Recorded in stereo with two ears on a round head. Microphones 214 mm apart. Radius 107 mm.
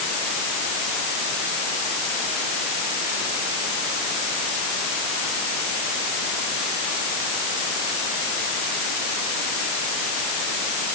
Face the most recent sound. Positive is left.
No sound to turn to.